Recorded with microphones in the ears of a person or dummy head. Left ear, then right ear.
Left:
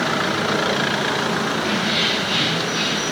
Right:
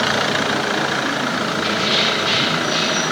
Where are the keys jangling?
85° right, 7 m; by 3.0 s 80° right, 7.5 m.